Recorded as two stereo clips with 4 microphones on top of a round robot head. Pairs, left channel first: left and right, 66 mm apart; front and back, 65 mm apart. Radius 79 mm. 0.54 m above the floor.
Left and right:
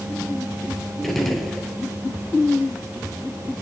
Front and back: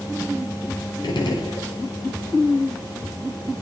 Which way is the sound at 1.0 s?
5° left.